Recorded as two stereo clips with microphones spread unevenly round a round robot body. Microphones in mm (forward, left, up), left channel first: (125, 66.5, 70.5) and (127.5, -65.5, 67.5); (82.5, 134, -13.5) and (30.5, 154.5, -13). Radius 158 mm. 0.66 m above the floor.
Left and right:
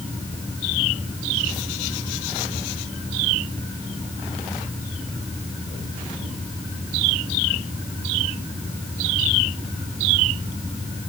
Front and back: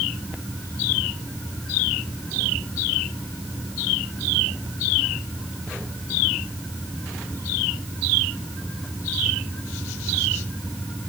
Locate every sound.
Only background noise.